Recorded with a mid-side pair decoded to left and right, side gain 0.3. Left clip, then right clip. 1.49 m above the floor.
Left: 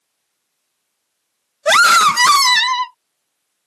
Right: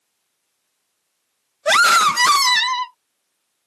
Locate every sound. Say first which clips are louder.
1.6 s a scream: left 3 dB; 35° left